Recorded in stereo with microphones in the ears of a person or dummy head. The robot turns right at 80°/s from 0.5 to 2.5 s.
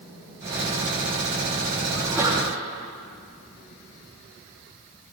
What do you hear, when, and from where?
1.9 s a sneeze: 175° left, 2.5 m; by 2.5 s 140° right, 2.5 m